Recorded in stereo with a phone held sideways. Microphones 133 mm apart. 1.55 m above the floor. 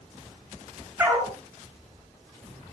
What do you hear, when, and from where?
1.0 s a dog barking: 15° right (ahead or behind), 6.5 m